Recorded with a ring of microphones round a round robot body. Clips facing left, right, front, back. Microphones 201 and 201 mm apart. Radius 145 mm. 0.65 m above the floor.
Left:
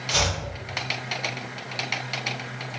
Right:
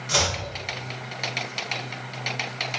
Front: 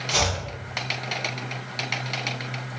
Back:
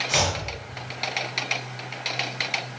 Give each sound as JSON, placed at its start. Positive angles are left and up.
{"t": 0.1, "sound": "chopping", "azimuth_deg": -100, "distance_m": 0.8}